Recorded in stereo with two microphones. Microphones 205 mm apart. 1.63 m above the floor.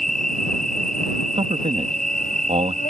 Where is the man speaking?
30° right (ahead or behind).